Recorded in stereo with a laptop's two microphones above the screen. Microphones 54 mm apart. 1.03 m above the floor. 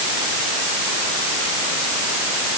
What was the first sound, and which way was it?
Only background noise.